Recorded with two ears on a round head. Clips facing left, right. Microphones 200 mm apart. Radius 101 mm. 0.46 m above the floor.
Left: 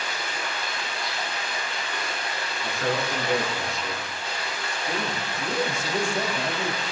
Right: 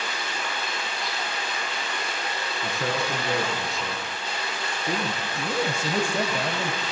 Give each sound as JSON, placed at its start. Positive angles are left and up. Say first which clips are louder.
{"t": 0.0, "sound": "running water", "louder": "even", "side_deg": -70, "distance_m": 8.5}
{"t": 2.6, "sound": "a man speaking", "louder": "left 1 dB", "side_deg": -80, "distance_m": 5.0}
{"t": 5.3, "sound": "a man speaking", "louder": "even", "side_deg": -65, "distance_m": 1.9}